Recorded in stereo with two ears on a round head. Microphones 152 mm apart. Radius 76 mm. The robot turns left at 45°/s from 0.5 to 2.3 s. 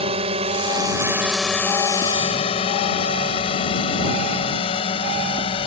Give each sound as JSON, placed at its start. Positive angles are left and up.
{"t": 0.0, "sound": "a drone", "side_deg": -35}